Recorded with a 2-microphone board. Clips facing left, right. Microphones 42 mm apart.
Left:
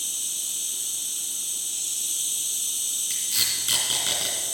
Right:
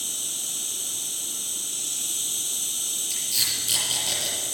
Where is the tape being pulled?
50° left (ahead or behind), 3 m.